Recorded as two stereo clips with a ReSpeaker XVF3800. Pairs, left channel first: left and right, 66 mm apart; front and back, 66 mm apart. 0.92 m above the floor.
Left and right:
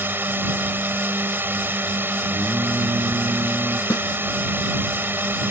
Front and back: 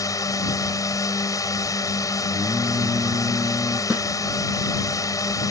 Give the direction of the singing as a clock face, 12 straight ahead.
5 o'clock.